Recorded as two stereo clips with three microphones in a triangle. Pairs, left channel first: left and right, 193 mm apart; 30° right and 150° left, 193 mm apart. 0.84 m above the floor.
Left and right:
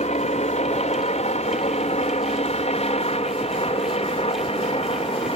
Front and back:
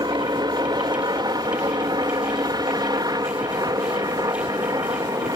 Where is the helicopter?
100° left.